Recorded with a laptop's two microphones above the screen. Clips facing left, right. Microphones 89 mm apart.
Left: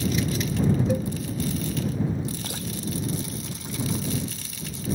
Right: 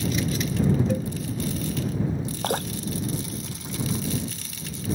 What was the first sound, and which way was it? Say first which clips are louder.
A cowbell: left 1 dB; 5° left (ahead or behind).